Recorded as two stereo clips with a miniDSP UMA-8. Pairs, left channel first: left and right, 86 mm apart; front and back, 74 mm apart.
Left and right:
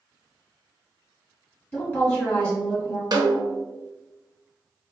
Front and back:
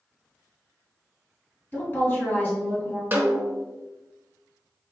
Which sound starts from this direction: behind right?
A snare drum, at 3.1 s.